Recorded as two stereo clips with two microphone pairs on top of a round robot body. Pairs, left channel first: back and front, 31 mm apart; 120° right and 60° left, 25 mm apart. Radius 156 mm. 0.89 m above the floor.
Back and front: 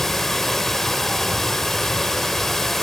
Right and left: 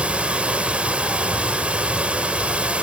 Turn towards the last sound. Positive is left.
turn(degrees=100)